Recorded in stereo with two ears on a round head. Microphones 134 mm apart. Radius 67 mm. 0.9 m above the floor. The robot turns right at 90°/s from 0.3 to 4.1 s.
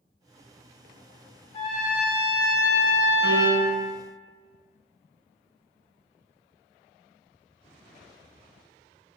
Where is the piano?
160° right, 0.9 m; by 3.8 s 110° right, 0.9 m.